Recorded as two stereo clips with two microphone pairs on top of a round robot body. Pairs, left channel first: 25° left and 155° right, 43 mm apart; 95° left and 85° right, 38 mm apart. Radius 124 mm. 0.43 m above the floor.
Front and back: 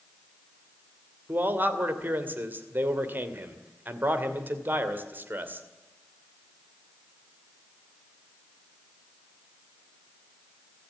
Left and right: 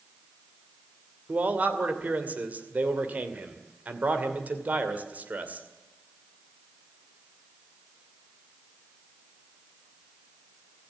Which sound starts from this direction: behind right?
A man speaking, at 1.3 s.